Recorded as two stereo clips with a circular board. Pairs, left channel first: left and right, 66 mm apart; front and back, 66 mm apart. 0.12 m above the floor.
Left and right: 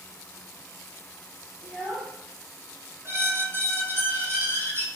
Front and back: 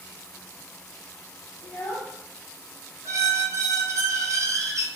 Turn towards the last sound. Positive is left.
turn(degrees=-145)